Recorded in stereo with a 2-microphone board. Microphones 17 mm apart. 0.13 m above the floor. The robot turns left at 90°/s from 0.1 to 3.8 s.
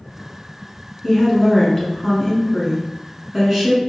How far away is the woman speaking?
About 1.1 m.